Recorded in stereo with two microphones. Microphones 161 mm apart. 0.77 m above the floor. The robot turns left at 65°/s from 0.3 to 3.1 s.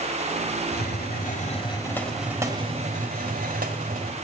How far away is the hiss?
About 1.5 m.